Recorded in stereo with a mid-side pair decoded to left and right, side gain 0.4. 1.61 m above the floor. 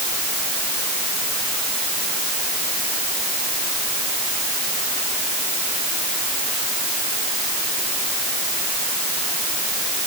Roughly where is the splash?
I don't hear a splash.